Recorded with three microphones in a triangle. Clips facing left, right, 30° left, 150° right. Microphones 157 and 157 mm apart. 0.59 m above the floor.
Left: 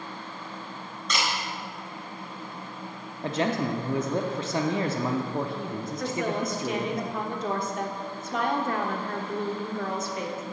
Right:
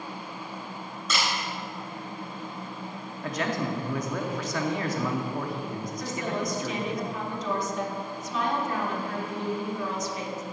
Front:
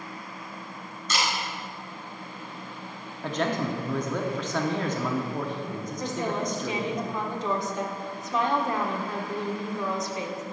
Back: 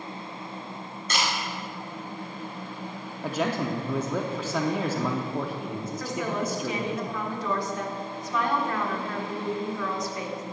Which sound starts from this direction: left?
A woman speaking, at 6.0 s.